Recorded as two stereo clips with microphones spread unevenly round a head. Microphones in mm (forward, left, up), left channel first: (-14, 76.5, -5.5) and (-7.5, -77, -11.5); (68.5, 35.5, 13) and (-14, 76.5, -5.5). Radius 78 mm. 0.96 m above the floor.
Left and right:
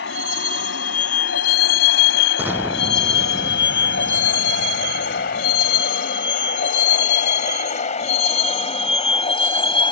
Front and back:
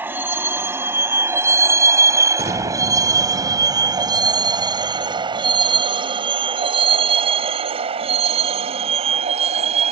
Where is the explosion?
165° right.